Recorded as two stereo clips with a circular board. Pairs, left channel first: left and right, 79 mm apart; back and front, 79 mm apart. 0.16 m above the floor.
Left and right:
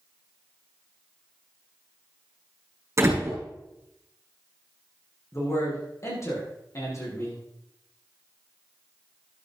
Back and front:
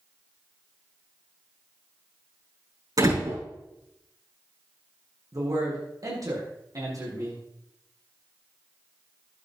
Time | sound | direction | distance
3.0 | a door slam | 35° right | 6 m
5.3 | a man speaking | 40° left | 6.5 m